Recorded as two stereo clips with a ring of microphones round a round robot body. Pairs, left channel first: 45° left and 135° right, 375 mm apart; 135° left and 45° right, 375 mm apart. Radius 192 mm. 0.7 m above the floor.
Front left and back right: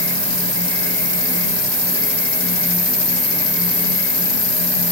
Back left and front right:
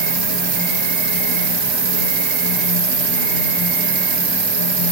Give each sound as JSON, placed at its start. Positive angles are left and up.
{"t": 0.0, "sound": "an insect", "azimuth_deg": -60, "distance_m": 1.6}